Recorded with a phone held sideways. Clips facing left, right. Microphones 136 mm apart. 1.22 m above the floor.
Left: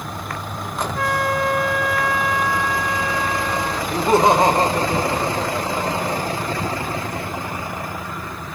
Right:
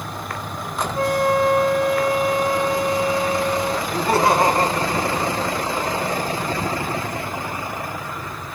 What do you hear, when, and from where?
0.9 s a flute: 25° right (ahead or behind), 1.6 m
3.9 s laughter: 20° left (ahead or behind), 0.9 m